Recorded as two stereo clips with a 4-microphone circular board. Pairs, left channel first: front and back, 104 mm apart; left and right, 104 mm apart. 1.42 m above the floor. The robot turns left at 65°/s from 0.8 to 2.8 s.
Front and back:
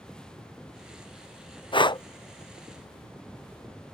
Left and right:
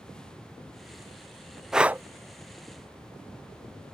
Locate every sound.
1.7 s breathing: 5° right; by 2.0 s 30° right